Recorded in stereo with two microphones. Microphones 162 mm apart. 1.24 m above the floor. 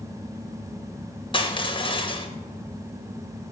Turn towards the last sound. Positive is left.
turn(degrees=30)  # may be behind; listen again after turning